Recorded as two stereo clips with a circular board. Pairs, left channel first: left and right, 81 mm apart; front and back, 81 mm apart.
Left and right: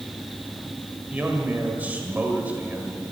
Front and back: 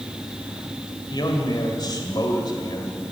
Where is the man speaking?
20° right, 2 m.